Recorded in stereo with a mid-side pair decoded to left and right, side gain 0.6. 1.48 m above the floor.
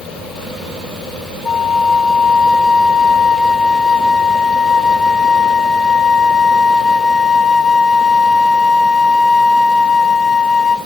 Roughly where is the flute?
Ahead.